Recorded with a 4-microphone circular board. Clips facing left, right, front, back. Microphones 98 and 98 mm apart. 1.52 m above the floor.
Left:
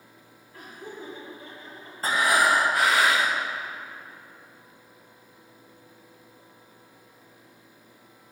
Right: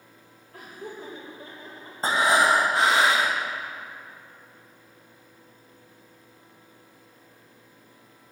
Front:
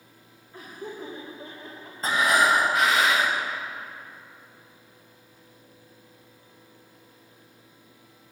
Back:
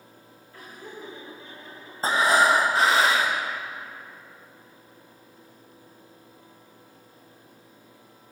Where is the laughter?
70° right, 2.5 m; by 1.9 s 30° right, 2.5 m.